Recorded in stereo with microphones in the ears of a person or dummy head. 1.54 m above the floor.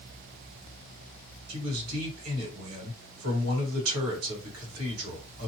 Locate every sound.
1.5 s a man speaking: 90° right, 1.9 m